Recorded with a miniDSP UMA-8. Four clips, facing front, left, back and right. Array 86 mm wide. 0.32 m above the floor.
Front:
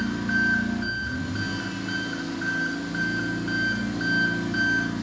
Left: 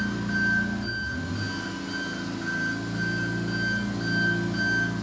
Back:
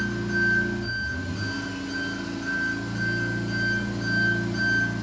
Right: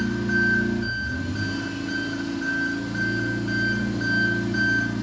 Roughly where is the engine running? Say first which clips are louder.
Right 4 dB, front 1 dB; ahead.